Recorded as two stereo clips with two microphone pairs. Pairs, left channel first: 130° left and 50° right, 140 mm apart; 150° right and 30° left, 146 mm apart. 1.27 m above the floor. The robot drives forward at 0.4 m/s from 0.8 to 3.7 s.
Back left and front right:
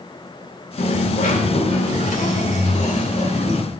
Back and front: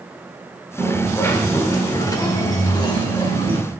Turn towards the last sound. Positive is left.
turn(degrees=155)